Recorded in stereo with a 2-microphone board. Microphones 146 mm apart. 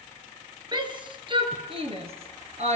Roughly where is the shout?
Right.